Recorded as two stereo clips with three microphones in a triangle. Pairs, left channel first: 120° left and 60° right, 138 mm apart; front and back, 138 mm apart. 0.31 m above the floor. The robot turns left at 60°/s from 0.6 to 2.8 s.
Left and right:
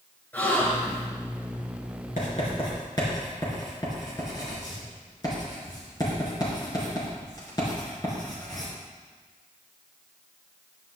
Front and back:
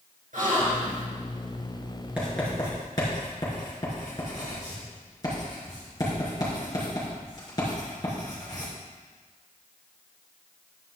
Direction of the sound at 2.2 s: 100° left.